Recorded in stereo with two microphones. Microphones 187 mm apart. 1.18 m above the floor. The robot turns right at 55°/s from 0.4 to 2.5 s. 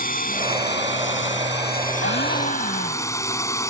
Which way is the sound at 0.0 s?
50° left.